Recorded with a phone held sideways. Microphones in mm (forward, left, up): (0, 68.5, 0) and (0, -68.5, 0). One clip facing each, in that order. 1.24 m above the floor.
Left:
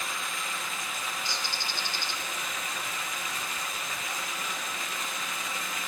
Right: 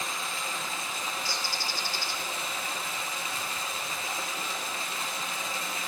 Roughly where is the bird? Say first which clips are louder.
Right 1 dB; left.